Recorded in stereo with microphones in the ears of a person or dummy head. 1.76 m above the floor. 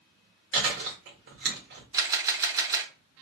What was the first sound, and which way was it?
Chewing, 65° right (ahead or behind).